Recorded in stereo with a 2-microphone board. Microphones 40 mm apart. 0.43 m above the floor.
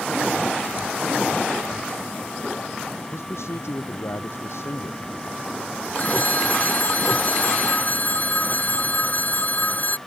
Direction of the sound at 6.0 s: 40° left (ahead or behind).